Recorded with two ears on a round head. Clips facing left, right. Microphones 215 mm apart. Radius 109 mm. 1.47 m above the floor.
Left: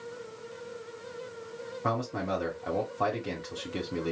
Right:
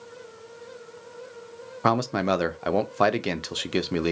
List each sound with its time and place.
1.8 s a man speaking: 75° right (ahead or behind), 0.6 m